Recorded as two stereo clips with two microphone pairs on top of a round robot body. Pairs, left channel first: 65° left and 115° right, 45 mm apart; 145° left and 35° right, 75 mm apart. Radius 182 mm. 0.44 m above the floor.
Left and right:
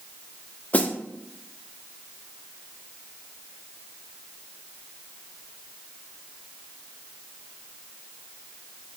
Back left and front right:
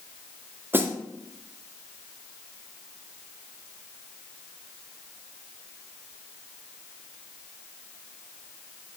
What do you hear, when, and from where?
0.7 s a snare drum: 25° left, 1.4 m